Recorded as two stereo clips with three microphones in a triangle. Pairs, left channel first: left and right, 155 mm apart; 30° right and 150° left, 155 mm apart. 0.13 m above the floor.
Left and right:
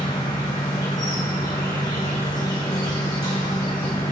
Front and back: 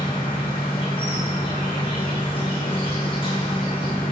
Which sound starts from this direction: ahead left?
An insect, at 0.0 s.